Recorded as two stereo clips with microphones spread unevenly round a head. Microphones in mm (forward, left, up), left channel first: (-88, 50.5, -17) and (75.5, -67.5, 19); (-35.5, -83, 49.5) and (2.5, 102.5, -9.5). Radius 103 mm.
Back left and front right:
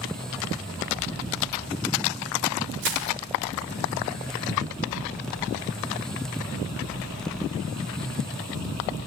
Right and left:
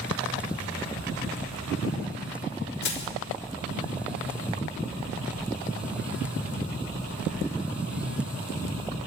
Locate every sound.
2.8 s crushing: 65° right, 4 m